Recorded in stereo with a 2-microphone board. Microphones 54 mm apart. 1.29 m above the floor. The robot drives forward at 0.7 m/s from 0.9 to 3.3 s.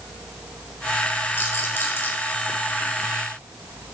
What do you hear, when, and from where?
1.4 s a rattle: 40° left (ahead or behind), 4 m; by 2.1 s 35° left (ahead or behind), 4.5 m